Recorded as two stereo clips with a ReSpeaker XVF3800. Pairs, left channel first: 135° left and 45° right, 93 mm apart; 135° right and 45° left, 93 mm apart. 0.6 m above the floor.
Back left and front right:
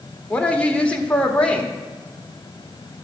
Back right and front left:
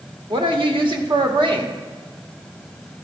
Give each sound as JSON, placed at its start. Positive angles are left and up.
{"t": 0.3, "sound": "a woman speaking", "azimuth_deg": 60, "distance_m": 1.3}